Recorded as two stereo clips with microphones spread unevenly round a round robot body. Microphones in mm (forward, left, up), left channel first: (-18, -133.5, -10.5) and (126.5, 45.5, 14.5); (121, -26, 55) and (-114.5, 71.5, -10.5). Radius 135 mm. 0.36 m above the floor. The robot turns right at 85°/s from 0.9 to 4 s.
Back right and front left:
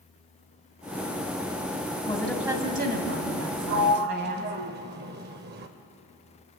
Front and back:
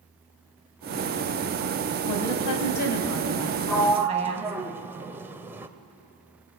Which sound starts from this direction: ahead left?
A sliding door, at 3.7 s.